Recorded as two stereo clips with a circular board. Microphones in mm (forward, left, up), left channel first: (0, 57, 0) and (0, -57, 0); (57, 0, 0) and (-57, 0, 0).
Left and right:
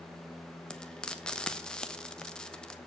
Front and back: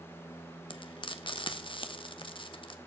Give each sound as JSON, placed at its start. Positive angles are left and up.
{"t": 0.7, "sound": "frying", "azimuth_deg": 10, "distance_m": 1.0}